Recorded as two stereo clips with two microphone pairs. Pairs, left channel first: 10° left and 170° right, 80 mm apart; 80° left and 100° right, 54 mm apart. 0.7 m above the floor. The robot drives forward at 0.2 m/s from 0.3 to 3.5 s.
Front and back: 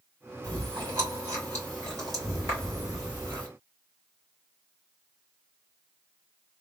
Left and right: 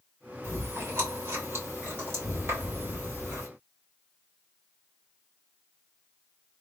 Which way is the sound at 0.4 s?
125° right.